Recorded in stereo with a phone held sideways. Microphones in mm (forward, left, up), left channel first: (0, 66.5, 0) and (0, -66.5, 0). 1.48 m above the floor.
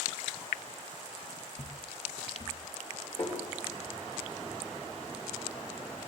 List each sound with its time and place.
1.5 s footsteps: 40° left (ahead or behind), 2 m; by 2.5 s 30° left (ahead or behind), 1.6 m
3.2 s tapping: 50° left (ahead or behind), 5 m